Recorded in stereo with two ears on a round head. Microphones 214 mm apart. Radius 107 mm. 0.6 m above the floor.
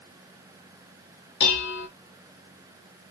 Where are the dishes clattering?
45° left (ahead or behind), 0.6 m.